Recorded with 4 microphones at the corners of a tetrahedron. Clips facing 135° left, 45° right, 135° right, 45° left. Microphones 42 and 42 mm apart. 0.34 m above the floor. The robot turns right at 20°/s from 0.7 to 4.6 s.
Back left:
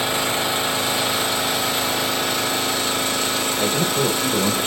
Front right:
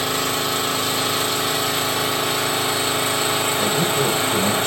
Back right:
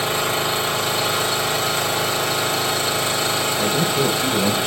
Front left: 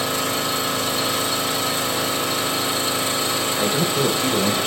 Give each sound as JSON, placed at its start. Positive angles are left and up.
{"t": 0.0, "sound": "an engine running", "azimuth_deg": -150, "distance_m": 1.7}
{"t": 3.6, "sound": "a man speaking", "azimuth_deg": 75, "distance_m": 1.0}